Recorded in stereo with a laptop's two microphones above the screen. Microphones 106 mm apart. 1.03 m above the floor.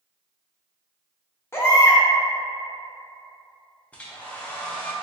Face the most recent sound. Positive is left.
turn(degrees=10)  # may be behind; listen again after turning